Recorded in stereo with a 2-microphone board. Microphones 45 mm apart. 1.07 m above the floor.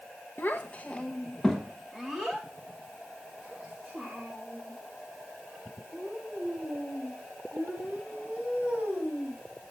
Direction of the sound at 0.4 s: 50° left (ahead or behind).